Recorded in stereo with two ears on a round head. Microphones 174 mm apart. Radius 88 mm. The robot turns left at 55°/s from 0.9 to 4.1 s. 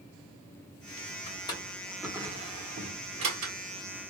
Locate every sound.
1.3 s a drawer: 35° left (ahead or behind), 1.2 m; by 3.5 s 85° right, 1.2 m